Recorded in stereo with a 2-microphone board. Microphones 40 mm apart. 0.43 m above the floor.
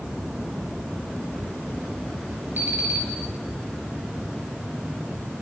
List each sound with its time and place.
2.6 s an alarm clock: 50° right (ahead or behind), 3.5 m